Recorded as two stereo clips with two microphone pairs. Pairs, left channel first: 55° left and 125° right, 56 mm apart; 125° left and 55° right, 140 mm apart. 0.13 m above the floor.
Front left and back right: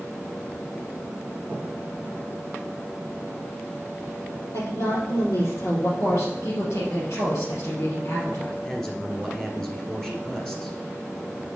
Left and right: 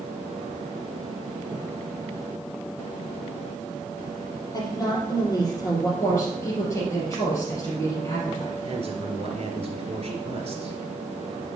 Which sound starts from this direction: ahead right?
A man speaking, at 8.6 s.